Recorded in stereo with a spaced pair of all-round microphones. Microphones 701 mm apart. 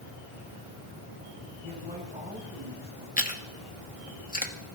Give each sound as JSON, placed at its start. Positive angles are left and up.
{"t": 1.6, "sound": "a man speaking", "side_deg": -10, "distance_m": 7.5}
{"t": 3.2, "sound": "chewing", "side_deg": 10, "distance_m": 1.3}